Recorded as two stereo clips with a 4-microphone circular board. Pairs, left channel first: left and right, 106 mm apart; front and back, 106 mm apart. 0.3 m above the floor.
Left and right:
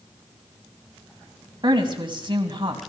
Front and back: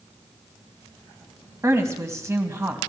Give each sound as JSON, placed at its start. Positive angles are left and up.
{"t": 1.6, "sound": "a woman speaking", "azimuth_deg": -120, "distance_m": 2.0}